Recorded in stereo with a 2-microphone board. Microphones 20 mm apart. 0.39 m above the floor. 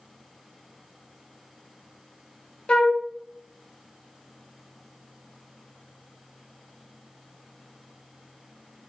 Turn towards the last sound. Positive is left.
turn(degrees=55)  # may be behind; listen again after turning